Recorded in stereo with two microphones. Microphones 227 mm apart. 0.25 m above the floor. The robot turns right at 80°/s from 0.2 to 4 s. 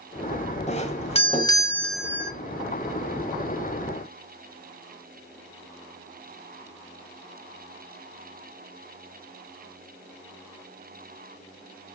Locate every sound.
0.7 s a doorbell: 30° left (ahead or behind), 1.5 m; by 2.3 s 15° right (ahead or behind), 1.5 m